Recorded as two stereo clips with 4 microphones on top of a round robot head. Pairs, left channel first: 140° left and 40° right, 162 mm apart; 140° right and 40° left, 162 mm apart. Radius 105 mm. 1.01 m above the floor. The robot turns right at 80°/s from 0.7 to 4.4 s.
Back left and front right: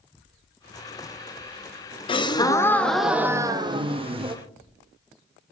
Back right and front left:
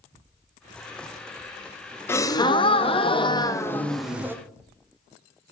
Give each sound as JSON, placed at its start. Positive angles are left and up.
{"t": 2.1, "sound": "a gasp", "azimuth_deg": 155, "distance_m": 0.5}